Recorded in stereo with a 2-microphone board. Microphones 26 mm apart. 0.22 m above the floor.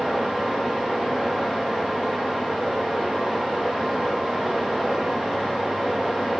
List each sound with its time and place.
0.0 s running water: 20° right (ahead or behind), 7.5 m